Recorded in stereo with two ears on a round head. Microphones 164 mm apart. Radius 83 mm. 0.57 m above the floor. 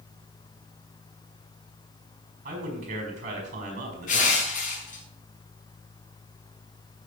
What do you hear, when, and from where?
2.5 s a man speaking: 45° right (ahead or behind), 5 m
4.1 s crushing: 45° left (ahead or behind), 4.5 m